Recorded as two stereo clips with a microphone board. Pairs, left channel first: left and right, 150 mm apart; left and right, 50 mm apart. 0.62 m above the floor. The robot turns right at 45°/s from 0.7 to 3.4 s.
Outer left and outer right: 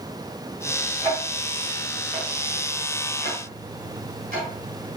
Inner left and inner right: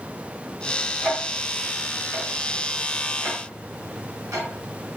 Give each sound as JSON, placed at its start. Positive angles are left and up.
{"t": 1.0, "sound": "ticking", "side_deg": 20, "distance_m": 1.8}